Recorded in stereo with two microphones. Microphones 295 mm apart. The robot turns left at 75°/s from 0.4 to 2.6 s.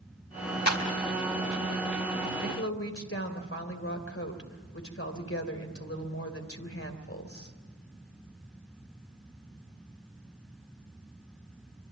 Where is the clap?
60° left (ahead or behind), 4 m; by 0.8 s 45° left (ahead or behind), 4 m.